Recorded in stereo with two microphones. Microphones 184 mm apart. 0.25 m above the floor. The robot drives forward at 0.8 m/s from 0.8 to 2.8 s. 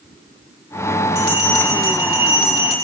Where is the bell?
60° right (ahead or behind), 9 m; by 2.8 s 55° right (ahead or behind), 9.5 m.